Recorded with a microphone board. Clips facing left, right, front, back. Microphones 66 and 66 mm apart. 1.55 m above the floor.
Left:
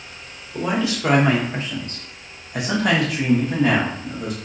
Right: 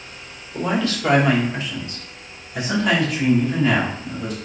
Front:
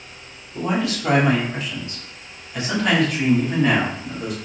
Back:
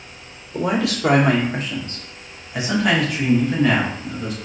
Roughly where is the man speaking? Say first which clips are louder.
Even, back 2 dB; behind.